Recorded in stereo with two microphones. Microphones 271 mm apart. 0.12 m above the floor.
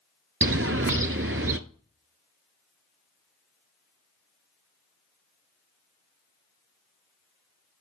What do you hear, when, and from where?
0.4 s a bird: 50° right (ahead or behind), 0.6 m